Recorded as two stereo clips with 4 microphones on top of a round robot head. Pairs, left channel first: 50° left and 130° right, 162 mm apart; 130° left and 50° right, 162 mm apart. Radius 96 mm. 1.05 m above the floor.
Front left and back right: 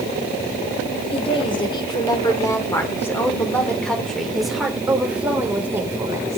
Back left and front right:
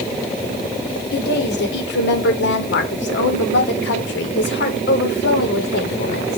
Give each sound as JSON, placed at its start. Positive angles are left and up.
{"t": 1.1, "sound": "a woman speaking", "azimuth_deg": 105, "distance_m": 3.5}